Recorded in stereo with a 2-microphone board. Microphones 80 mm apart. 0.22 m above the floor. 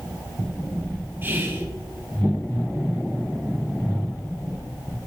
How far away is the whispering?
About 1.0 m.